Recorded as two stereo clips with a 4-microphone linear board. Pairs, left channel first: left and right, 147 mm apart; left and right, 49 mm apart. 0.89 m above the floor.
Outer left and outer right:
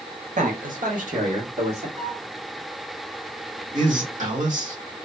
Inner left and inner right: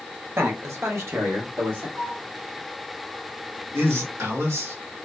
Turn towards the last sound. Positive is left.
turn(degrees=-65)  # may be behind; listen again after turning